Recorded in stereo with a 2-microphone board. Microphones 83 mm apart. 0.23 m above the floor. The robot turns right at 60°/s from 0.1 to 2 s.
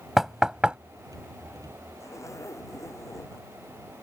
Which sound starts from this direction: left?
A zipper, at 2.0 s.